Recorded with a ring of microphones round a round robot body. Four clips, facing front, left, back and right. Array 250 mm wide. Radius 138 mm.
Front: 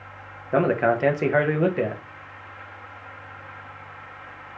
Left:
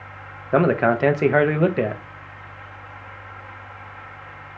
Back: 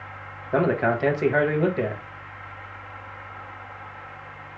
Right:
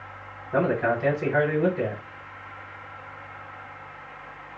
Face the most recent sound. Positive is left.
turn(degrees=80)